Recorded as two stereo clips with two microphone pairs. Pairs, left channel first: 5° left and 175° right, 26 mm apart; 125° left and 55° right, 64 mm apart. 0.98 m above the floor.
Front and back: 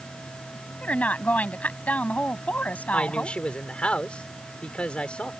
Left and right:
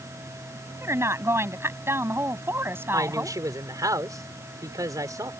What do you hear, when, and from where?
0.8 s a woman speaking: 10° right; by 3.4 s straight ahead
2.9 s a woman speaking: 30° right